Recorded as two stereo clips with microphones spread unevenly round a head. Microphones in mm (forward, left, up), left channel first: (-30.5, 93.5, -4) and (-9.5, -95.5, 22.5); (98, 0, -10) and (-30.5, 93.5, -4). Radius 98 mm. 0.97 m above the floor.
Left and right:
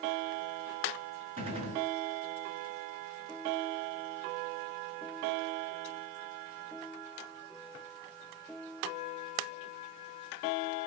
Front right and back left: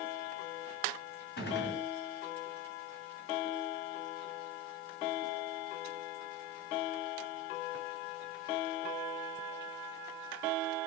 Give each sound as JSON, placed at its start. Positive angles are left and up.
{"t": 1.4, "sound": "a gunshot", "azimuth_deg": -25, "distance_m": 4.5}